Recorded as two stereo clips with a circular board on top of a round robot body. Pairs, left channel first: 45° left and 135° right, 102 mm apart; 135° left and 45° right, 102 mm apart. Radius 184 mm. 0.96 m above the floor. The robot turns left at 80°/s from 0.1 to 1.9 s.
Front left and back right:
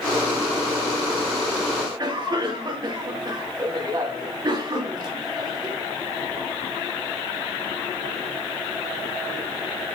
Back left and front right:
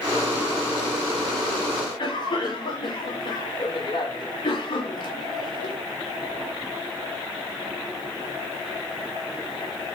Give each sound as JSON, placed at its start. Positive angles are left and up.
{"t": 1.8, "sound": "a cough", "azimuth_deg": 180, "distance_m": 3.0}